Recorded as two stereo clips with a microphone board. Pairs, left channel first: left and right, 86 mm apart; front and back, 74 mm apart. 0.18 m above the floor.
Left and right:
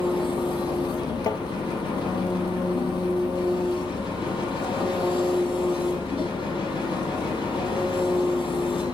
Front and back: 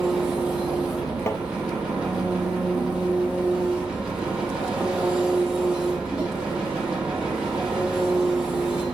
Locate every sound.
0.0 s an engine running: 100° left, 3.5 m
1.3 s tapping: 50° left, 1.0 m